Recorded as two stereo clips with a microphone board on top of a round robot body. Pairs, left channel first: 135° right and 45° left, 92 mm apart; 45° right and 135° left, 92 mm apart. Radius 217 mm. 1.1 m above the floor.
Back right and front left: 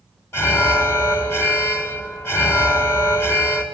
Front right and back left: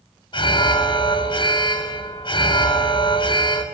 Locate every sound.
0.3 s an alarm: 75° right, 3 m